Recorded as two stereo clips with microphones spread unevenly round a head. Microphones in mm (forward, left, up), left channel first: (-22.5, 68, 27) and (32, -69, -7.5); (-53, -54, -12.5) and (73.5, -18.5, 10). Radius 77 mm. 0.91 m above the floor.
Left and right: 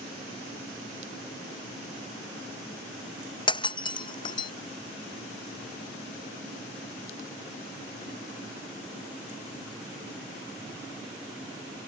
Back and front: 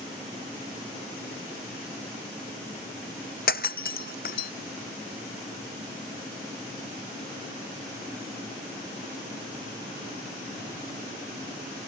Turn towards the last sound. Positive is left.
turn(degrees=165)